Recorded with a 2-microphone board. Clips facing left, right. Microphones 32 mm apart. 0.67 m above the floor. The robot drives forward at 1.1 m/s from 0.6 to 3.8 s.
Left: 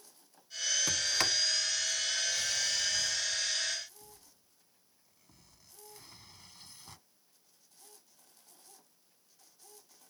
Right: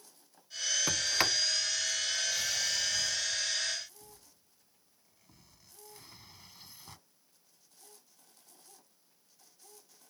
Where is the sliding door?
20° right (ahead or behind); by 7.0 s 5° right (ahead or behind).